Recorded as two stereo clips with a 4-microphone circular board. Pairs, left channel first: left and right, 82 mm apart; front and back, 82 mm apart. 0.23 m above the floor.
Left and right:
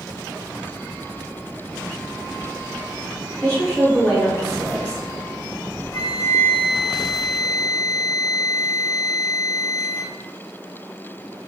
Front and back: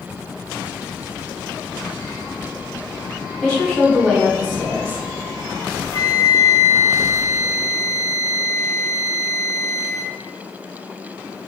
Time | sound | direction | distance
3.4 | a woman speaking | 60° left | 1.4 m
5.9 | a flute | 50° left | 0.8 m